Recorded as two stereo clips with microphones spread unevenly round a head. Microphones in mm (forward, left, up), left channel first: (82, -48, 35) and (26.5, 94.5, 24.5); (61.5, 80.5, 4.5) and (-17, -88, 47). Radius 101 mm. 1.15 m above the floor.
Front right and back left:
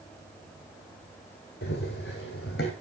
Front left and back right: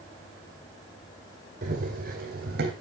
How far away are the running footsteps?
About 2.5 m.